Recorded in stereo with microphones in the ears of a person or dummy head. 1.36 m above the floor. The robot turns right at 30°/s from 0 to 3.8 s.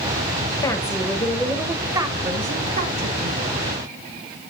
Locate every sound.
0.6 s a woman speaking: 160° left, 1.1 m; by 3.4 s 115° right, 1.1 m